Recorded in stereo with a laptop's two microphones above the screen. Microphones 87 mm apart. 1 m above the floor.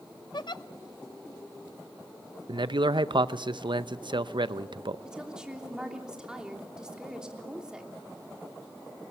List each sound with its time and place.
0.3 s a giggle: 60° left (ahead or behind), 0.6 m
2.5 s a man speaking: 65° right (ahead or behind), 0.6 m
5.0 s a woman speaking: 10° right (ahead or behind), 3 m